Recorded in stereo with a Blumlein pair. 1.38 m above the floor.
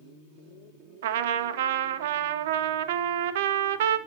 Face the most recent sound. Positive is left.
turn(degrees=-55)